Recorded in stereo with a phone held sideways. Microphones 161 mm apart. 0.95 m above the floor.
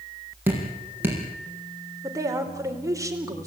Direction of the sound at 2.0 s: 20° right (ahead or behind).